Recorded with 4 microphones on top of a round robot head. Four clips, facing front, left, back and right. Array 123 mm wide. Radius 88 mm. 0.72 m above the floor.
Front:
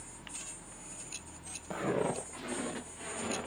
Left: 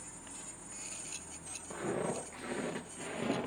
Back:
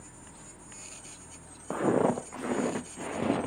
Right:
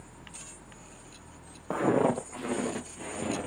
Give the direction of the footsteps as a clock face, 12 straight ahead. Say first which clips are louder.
Right 11 dB, back 7 dB; 4 o'clock.